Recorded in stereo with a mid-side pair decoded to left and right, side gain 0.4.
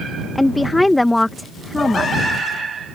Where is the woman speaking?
15° left.